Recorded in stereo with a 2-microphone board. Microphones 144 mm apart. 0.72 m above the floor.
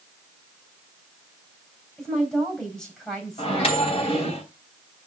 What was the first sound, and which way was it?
A woman speaking, 5° left (ahead or behind).